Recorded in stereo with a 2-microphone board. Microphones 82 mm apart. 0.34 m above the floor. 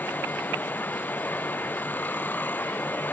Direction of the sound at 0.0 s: 20° left (ahead or behind).